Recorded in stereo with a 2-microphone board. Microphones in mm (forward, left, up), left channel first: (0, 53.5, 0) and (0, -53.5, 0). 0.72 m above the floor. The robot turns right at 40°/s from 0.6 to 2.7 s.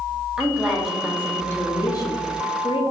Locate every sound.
0.4 s a woman speaking: 10° right, 1.1 m; by 2.8 s 75° left, 1.1 m